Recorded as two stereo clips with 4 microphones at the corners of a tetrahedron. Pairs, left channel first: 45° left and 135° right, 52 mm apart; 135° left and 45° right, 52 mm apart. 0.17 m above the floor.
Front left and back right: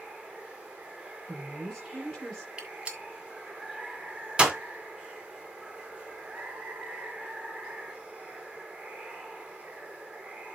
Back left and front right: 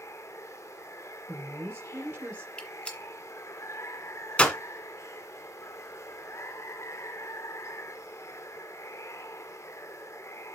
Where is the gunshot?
175° left, 1.8 m.